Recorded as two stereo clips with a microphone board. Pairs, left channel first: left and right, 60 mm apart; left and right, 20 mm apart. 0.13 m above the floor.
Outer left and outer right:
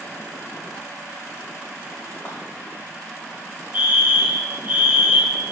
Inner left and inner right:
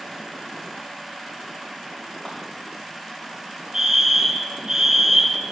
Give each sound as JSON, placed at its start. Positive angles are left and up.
{"t": 2.2, "sound": "a clap", "side_deg": 35, "distance_m": 6.5}
{"t": 3.7, "sound": "a fire alarm", "side_deg": -30, "distance_m": 2.5}